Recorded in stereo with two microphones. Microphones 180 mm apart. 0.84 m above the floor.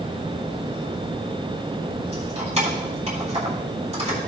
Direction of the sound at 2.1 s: 35° right (ahead or behind).